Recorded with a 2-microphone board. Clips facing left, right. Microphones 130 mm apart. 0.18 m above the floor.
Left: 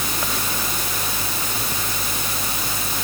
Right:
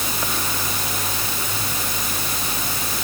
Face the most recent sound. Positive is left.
No sound to turn to.